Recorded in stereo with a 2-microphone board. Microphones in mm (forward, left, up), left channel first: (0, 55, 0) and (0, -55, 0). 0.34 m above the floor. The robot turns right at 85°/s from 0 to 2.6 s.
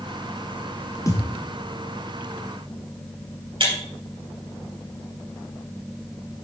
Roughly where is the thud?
Left.